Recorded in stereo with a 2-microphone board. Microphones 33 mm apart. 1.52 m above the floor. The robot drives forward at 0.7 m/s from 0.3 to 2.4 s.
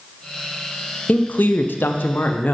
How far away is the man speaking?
About 0.8 m.